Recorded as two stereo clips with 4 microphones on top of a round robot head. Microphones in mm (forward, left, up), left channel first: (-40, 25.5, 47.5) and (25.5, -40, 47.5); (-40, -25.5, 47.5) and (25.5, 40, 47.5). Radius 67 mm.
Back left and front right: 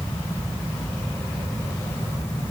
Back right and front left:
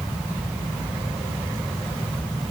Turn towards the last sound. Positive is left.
No sound to turn to.